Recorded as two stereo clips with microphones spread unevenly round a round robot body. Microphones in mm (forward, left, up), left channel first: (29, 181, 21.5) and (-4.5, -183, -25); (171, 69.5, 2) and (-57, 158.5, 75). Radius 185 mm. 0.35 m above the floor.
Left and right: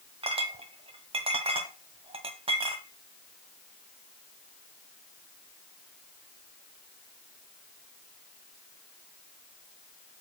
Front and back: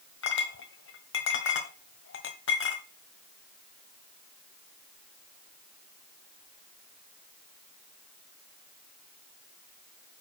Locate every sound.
0.2 s a clink: 25° right, 1.3 m